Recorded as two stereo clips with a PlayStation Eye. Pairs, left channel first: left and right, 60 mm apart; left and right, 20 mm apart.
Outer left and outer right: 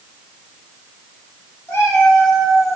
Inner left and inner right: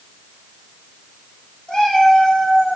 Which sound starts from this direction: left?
A cat meowing, at 1.7 s.